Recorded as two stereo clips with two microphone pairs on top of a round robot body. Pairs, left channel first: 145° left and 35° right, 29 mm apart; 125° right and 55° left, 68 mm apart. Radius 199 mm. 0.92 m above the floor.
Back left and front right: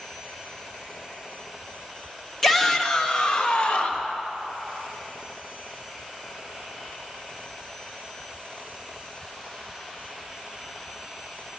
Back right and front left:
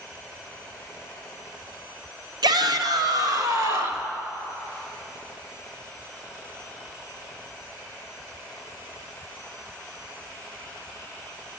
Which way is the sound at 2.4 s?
60° left.